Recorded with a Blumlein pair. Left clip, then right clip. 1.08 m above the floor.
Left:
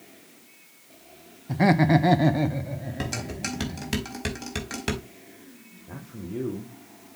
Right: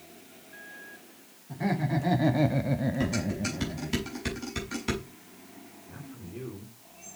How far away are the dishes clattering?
About 5 m.